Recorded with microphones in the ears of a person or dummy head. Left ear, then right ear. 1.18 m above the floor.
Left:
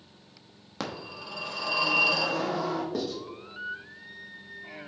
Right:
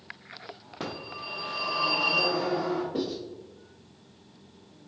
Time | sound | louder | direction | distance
0.8 | a phone ringing | even | 70° left (ahead or behind) | 1.0 m
2.9 | writing | right 1 dB | 55° left (ahead or behind) | 1.2 m